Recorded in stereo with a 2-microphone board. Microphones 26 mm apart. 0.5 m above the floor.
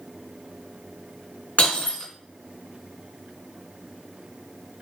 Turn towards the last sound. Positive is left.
turn(degrees=70)  # may be behind; listen again after turning